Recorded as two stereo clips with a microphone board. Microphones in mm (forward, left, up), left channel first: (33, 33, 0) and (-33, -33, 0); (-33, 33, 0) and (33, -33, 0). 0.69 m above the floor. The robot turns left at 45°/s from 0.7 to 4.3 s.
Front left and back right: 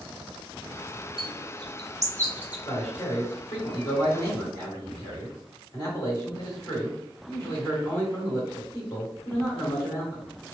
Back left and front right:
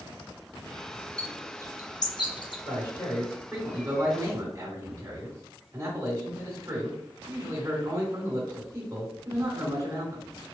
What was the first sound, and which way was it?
A bird, 145° right.